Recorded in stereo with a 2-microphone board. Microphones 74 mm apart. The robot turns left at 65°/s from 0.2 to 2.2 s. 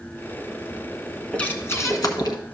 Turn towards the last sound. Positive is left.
turn(degrees=110)